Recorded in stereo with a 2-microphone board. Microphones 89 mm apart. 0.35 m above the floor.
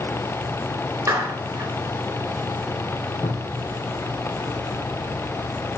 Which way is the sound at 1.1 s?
30° right (ahead or behind).